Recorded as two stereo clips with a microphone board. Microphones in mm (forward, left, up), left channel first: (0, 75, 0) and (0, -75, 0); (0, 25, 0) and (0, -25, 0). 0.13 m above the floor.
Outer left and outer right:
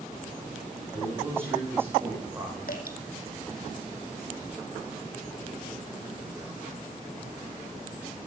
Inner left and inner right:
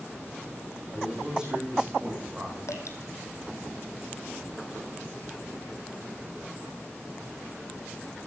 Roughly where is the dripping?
Left.